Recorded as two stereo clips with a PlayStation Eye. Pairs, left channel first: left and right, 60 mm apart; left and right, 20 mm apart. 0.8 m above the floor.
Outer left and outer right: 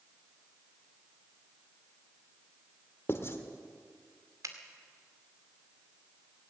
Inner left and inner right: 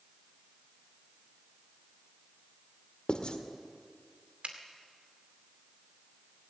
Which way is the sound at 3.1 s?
45° left (ahead or behind).